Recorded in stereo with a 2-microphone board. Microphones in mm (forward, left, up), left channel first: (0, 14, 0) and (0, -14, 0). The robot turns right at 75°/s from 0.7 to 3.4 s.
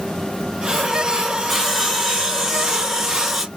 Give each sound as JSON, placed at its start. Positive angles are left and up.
{"t": 1.5, "sound": "sawing", "side_deg": -5, "distance_m": 0.8}